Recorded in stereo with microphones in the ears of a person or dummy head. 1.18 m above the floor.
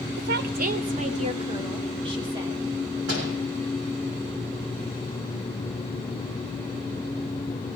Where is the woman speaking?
60° right (ahead or behind), 0.7 m; by 3.0 s 20° right (ahead or behind), 2.5 m.